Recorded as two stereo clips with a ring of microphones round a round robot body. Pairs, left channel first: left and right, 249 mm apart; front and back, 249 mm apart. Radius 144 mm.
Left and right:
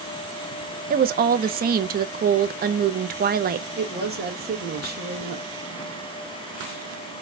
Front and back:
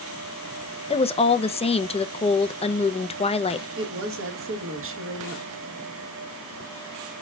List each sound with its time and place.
0.9 s a woman speaking: 55° right, 0.5 m
3.8 s a woman speaking: 140° right, 1.3 m